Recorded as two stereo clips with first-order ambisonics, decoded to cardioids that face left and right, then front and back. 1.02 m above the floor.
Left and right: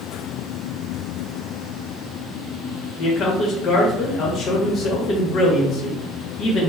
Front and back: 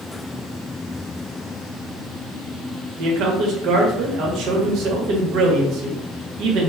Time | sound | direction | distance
3.0 | a man speaking | 145° left | 0.9 m